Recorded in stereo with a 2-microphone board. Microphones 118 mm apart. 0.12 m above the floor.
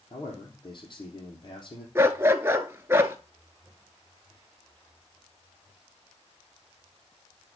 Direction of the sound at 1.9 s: 20° right (ahead or behind).